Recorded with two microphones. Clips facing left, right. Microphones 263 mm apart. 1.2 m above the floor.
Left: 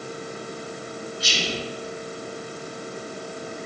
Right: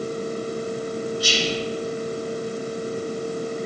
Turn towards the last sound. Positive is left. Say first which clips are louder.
# right 5 dB
turn(degrees=25)  # may be behind; listen again after turning